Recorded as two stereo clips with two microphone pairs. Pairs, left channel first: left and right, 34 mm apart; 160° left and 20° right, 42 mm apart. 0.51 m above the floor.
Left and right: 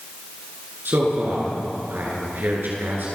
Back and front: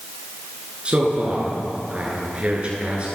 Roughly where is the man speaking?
Right.